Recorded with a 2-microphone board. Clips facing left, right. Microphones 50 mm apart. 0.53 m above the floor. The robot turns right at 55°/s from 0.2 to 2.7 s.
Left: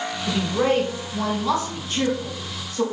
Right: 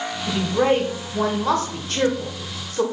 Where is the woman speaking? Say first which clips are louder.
Right 2 dB; 10° left (ahead or behind), 2.5 m; by 2.8 s 45° right (ahead or behind), 2.5 m.